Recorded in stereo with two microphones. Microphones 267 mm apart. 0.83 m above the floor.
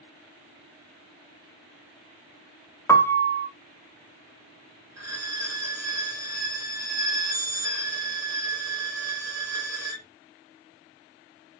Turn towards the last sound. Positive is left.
turn(degrees=-70)  # may be behind; listen again after turning